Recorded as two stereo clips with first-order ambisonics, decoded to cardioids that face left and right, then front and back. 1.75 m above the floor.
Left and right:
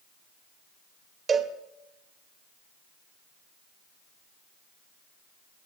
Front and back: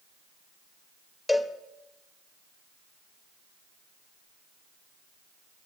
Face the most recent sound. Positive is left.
turn(degrees=-70)